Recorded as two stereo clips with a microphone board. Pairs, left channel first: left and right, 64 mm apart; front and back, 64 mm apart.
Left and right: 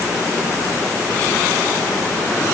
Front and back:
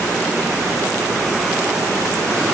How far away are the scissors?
I don't hear scissors.